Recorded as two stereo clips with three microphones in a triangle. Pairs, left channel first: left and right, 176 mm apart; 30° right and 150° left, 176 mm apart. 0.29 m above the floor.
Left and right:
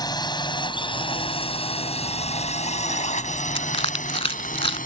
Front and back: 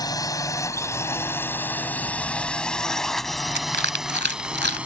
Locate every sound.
0.0 s a drone: 30° left; by 4.9 s 70° left
3.5 s crushing: 145° left